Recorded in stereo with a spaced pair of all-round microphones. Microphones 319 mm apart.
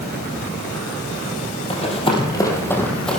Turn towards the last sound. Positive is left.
turn(degrees=0)  # may be behind; listen again after turning